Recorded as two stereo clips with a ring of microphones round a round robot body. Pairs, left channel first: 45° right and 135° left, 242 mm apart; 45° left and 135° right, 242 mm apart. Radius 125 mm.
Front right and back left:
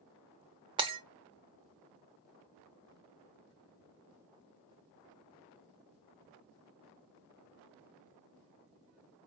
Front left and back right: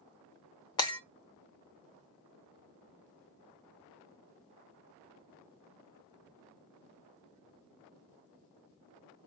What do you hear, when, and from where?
0.8 s breaking glass: 90° left, 0.7 m